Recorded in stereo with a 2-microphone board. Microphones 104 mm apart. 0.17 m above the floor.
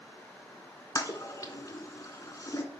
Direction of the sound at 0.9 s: 35° left (ahead or behind).